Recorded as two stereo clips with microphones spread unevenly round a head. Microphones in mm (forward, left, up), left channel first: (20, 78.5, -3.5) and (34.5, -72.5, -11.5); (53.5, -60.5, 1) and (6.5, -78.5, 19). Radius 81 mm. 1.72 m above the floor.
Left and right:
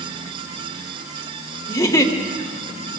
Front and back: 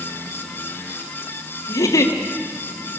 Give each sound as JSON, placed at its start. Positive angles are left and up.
{"t": 1.7, "sound": "a giggle", "azimuth_deg": 25, "distance_m": 2.0}